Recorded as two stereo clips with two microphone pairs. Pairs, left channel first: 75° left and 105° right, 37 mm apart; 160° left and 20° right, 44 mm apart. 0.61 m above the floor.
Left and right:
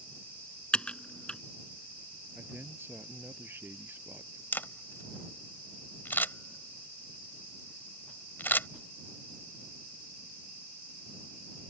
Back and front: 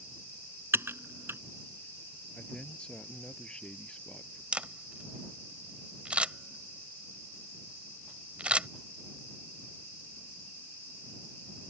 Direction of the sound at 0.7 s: 15° left.